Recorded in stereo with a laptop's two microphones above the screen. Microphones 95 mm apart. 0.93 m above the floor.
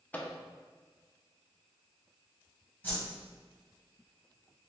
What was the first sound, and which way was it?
A microwave, 15° left (ahead or behind).